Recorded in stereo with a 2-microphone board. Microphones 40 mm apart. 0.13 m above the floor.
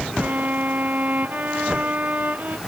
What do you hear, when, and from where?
0.2 s a violin: 45° right (ahead or behind)